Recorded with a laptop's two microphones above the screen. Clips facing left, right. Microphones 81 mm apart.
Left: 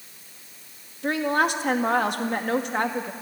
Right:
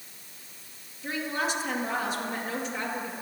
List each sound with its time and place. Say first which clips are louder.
1.0 s a woman speaking: left 8 dB; 60° left (ahead or behind), 1.7 m